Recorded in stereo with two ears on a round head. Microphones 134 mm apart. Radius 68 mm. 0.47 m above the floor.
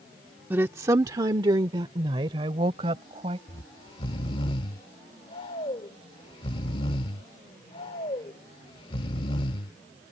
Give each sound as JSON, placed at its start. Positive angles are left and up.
{"t": 0.5, "sound": "a woman speaking", "side_deg": -15}
{"t": 3.5, "sound": "snoring", "side_deg": 35}